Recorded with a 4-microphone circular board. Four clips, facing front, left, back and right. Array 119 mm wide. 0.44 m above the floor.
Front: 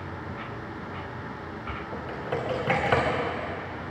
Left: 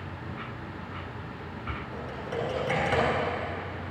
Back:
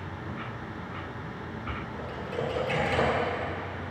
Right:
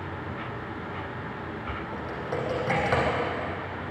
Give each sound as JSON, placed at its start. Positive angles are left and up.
{"t": 1.9, "sound": "typing on a keyboard", "azimuth_deg": -20, "distance_m": 5.5}